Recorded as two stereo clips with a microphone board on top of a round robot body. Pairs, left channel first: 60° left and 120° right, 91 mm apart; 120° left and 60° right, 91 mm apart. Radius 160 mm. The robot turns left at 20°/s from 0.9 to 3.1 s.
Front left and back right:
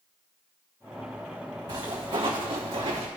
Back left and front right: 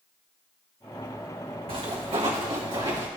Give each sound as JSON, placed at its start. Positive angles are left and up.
{"t": 1.7, "sound": "footsteps", "azimuth_deg": -75, "distance_m": 1.9}